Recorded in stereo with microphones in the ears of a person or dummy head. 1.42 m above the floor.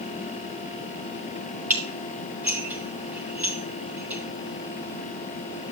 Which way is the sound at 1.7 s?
10° right (ahead or behind).